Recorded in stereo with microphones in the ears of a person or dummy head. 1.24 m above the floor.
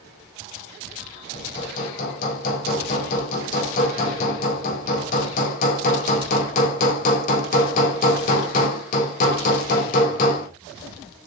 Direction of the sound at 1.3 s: 45° left (ahead or behind).